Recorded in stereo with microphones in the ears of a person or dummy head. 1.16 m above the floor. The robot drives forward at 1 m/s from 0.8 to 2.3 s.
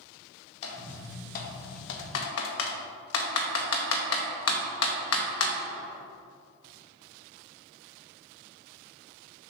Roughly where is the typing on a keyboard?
Left.